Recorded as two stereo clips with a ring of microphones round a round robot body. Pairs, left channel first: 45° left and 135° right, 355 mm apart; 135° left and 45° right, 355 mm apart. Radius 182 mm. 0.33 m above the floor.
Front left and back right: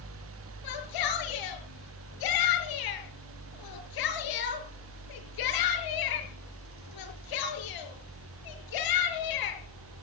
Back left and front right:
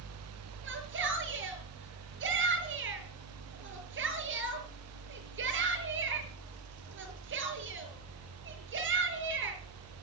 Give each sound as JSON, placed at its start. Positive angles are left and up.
{"t": 0.6, "sound": "a shout", "azimuth_deg": 15, "distance_m": 6.5}